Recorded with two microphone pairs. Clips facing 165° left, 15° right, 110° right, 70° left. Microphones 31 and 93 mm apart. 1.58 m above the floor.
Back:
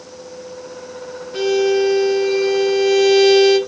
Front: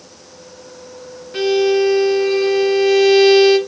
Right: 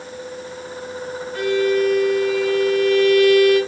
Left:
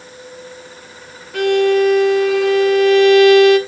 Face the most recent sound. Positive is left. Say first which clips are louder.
# front 1 dB, left 5 dB
turn(degrees=60)